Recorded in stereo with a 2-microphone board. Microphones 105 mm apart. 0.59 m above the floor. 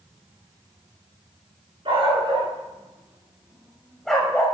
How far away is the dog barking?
About 3 m.